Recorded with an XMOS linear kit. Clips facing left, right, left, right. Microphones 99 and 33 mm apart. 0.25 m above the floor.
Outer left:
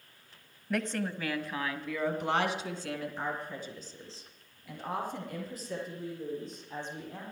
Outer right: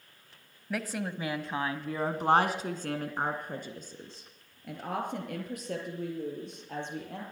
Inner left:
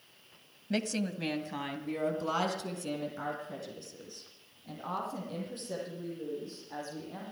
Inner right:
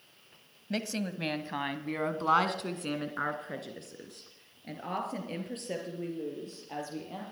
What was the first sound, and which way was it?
A woman speaking, centre (ahead or behind).